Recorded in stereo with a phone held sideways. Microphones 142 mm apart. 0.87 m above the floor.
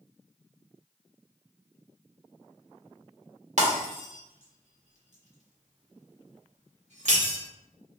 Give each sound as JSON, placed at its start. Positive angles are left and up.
{"t": 3.6, "sound": "breaking glass", "side_deg": -60, "distance_m": 1.1}